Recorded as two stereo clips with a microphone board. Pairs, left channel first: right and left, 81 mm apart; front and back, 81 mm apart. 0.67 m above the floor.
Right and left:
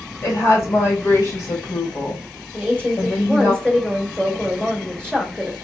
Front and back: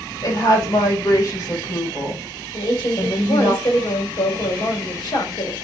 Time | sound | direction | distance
0.2 | a woman speaking | 35° right | 2.5 m
2.5 | a woman speaking | 10° right | 2.5 m